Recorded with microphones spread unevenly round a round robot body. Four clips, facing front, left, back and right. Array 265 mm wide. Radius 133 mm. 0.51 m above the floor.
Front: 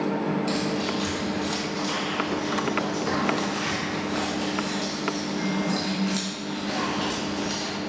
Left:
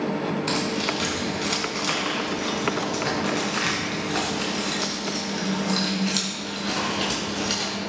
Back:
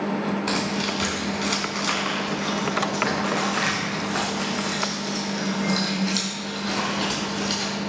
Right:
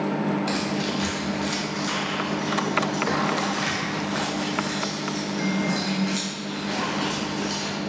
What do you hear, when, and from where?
0.5 s keys jangling: 170° left, 4.5 m; by 7.7 s 125° left, 5.5 m